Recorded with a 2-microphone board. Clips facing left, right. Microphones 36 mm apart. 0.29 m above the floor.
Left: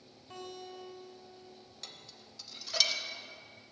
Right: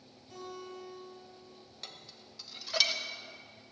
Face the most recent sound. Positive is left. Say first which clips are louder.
# right 2 dB
turn(degrees=-15)  # may be behind; listen again after turning